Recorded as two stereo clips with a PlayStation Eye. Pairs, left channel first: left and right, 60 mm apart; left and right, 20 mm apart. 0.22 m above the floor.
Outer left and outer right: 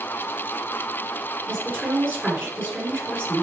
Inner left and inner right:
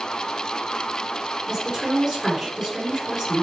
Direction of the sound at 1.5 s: 30° right (ahead or behind).